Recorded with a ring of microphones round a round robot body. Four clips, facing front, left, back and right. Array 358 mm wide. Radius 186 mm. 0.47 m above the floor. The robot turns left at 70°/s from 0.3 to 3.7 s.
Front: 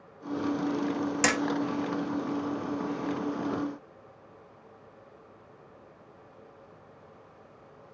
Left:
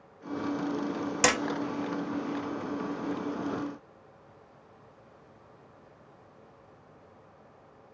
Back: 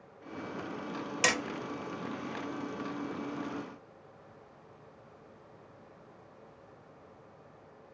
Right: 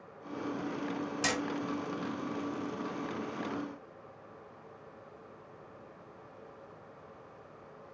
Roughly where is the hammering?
Left.